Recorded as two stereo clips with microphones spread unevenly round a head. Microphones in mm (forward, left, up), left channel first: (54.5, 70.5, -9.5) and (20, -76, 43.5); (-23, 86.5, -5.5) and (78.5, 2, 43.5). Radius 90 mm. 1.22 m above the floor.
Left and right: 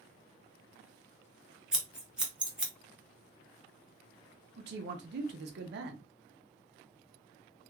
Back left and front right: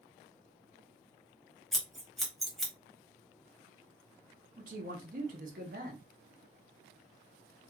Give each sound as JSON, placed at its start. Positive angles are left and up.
{"t": 1.7, "sound": "scissors", "azimuth_deg": -80, "distance_m": 0.6}
{"t": 4.6, "sound": "a man speaking", "azimuth_deg": -85, "distance_m": 0.6}